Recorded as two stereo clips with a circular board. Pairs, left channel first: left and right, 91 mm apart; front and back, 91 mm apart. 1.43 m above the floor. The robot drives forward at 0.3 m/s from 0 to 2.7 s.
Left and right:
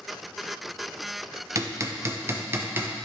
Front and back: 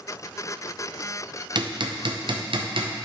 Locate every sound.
1.6 s hammering: 145° right, 0.7 m; by 2.9 s 155° right, 1.0 m